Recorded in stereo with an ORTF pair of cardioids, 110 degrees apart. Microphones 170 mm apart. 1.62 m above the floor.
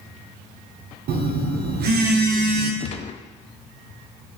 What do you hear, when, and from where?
1.1 s a phone buzzing: 65° right, 1.3 m
2.8 s a gunshot: 35° left, 0.6 m